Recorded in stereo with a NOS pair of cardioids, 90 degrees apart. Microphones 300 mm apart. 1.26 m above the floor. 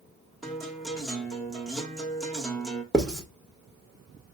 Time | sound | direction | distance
0.4 | a guitar | straight ahead | 1.6 m
2.9 | writing | straight ahead | 1.5 m